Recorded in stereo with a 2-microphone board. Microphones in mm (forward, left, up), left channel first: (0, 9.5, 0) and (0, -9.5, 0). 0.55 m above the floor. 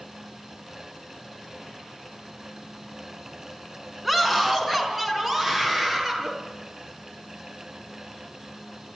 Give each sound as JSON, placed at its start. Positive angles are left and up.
{"t": 4.0, "sound": "a scream", "side_deg": -5, "distance_m": 4.5}